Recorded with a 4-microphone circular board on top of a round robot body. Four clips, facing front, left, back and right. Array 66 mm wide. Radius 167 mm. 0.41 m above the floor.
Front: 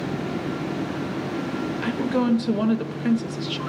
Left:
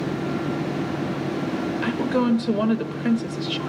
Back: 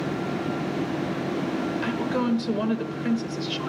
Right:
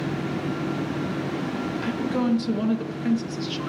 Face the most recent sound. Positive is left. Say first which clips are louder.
# left 3 dB, front 5 dB
turn(degrees=60)